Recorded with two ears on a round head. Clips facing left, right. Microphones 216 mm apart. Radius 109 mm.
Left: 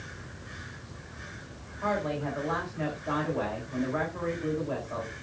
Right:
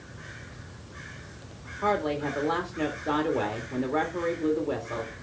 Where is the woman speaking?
50° right (ahead or behind), 1.8 m.